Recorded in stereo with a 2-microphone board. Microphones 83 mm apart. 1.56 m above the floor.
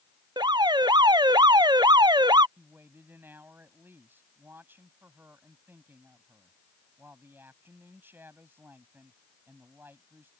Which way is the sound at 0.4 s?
65° right (ahead or behind).